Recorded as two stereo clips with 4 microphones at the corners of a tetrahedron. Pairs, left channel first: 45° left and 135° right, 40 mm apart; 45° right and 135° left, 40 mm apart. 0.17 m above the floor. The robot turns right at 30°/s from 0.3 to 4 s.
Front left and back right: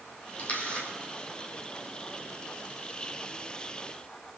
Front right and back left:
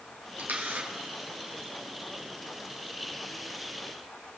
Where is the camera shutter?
95° left, 3 m; by 0.9 s 110° left, 3 m.